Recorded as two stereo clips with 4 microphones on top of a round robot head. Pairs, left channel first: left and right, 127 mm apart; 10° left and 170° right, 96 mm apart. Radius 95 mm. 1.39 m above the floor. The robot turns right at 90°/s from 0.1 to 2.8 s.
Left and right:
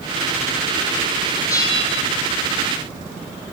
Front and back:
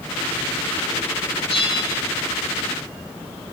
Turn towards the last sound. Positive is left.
turn(degrees=145)